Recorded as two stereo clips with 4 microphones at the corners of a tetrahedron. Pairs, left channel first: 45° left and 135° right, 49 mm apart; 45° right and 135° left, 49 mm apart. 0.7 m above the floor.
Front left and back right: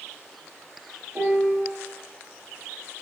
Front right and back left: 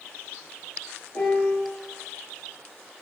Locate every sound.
1.1 s a piano: 80° right, 6.5 m